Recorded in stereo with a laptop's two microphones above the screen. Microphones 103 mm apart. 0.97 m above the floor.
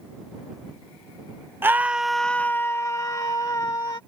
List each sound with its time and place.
1.6 s a scream: 20° right (ahead or behind); by 4.0 s 40° left (ahead or behind)